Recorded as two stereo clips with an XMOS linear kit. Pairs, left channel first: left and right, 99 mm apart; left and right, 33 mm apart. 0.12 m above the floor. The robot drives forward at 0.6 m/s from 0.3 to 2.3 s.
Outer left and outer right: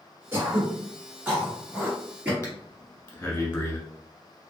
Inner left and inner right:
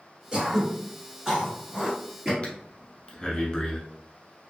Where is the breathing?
25° left (ahead or behind), 0.9 m.